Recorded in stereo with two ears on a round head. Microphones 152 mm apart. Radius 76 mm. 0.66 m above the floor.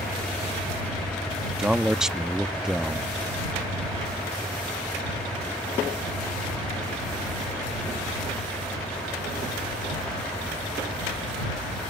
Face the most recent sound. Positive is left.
turn(degrees=-5)  # may be behind; listen again after turning